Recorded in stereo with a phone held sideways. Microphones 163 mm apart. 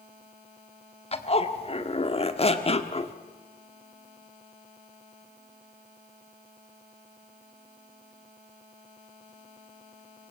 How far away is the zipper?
About 1.7 m.